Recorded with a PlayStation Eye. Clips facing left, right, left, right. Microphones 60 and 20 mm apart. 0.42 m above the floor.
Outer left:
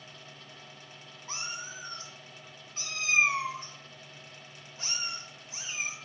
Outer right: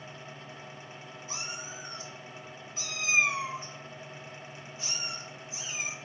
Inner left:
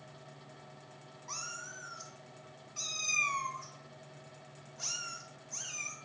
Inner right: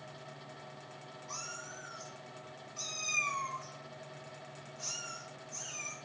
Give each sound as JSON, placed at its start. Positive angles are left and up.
{"t": 1.3, "sound": "a cat meowing", "side_deg": 45, "distance_m": 0.6}